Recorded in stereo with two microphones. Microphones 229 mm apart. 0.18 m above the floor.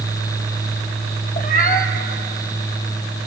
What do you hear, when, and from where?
1.4 s a cat meowing: 40° left (ahead or behind), 2 m